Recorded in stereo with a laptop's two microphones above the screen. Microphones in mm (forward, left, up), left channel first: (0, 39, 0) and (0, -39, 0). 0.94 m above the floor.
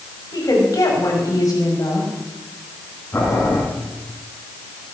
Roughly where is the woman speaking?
Left.